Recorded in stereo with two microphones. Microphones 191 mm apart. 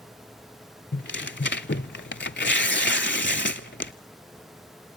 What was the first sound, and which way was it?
Tearing paper, 70° left (ahead or behind).